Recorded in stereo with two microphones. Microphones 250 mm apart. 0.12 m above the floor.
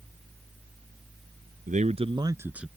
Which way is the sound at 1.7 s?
30° right (ahead or behind).